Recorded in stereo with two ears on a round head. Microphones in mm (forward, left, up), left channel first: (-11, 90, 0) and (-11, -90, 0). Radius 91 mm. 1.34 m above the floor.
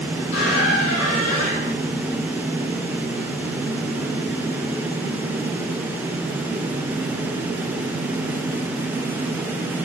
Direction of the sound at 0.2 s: 35° left (ahead or behind).